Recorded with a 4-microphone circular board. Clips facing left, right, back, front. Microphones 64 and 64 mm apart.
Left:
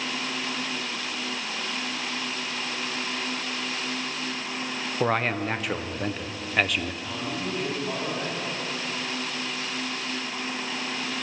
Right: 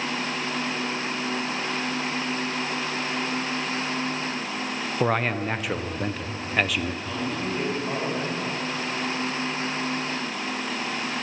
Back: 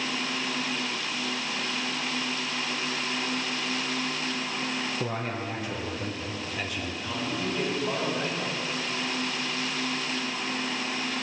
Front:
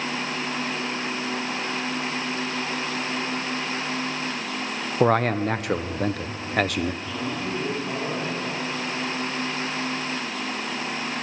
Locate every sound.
5.0 s a man speaking: straight ahead, 0.6 m
7.0 s a man speaking: 130° right, 6 m